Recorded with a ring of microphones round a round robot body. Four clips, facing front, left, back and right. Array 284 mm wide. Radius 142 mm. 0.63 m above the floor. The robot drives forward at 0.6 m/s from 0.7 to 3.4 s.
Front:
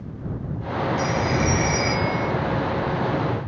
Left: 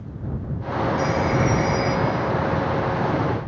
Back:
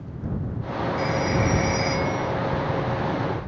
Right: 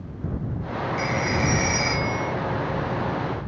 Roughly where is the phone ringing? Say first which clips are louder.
Left 3 dB, back 1 dB; ahead right.